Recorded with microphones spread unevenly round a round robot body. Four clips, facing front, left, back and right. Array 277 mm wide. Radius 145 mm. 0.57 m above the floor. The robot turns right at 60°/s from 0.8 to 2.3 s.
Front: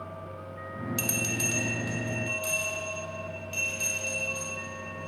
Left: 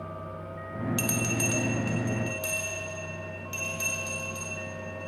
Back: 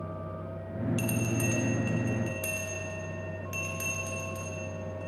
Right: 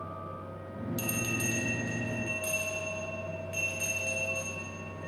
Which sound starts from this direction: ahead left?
A bell, at 1.0 s.